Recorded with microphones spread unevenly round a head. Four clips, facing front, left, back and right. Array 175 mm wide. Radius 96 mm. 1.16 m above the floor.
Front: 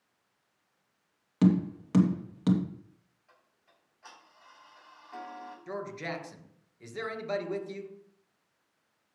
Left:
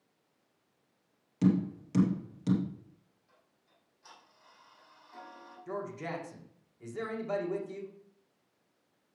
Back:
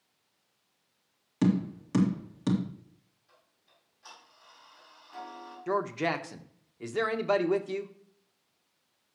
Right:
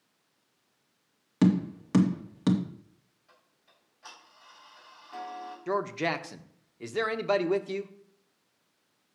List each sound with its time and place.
1.4 s tapping: 80° right, 2.5 m
3.3 s ticking: 60° right, 6.5 m
5.7 s a man speaking: 125° right, 1.2 m